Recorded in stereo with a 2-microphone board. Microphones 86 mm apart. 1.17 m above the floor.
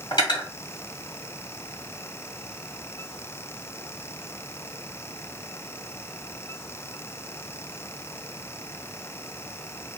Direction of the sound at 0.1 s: 65° left (ahead or behind).